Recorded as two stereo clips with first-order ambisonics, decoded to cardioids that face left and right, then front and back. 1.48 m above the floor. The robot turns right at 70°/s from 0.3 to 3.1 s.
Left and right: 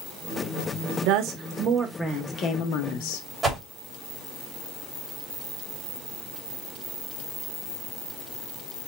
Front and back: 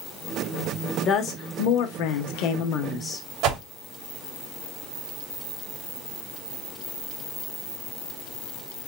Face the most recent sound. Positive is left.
turn(degrees=-160)